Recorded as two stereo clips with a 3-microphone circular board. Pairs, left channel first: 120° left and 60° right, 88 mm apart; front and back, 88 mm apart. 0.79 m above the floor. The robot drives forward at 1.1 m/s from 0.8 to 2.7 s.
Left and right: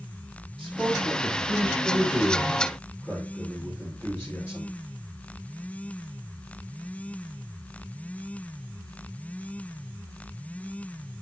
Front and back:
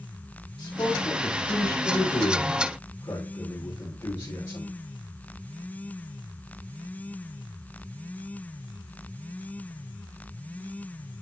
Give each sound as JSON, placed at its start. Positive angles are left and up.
{"t": 0.6, "sound": "a man speaking", "azimuth_deg": 20, "distance_m": 4.5}